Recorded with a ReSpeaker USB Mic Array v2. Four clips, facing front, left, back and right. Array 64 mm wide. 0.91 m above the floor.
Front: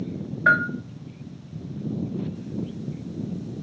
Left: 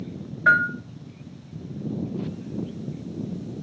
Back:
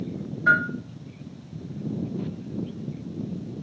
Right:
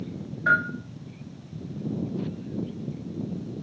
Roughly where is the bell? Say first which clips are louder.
Left 4 dB, front 1 dB; ahead left.